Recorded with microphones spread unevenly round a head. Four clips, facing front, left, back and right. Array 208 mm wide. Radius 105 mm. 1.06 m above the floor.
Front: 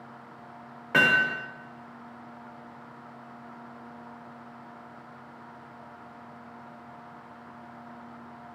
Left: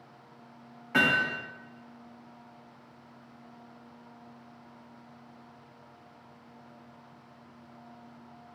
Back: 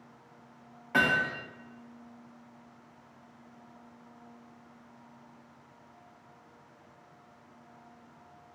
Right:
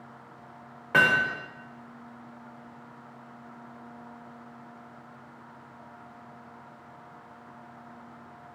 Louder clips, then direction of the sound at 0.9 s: Right 4 dB, front 4 dB; 50° right.